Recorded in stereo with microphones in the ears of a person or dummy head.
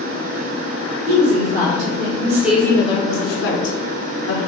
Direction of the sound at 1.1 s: 50° right (ahead or behind).